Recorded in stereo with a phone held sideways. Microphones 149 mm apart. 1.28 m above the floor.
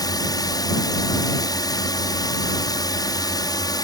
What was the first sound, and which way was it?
A drone, 25° left (ahead or behind).